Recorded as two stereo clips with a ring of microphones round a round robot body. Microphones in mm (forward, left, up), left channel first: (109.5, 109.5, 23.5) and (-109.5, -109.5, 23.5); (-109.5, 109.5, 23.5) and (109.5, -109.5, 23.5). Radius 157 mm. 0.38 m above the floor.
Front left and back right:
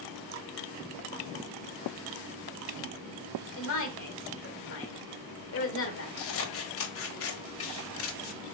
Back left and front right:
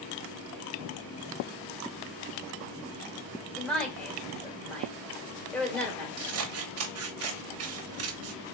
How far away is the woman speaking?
About 1.5 m.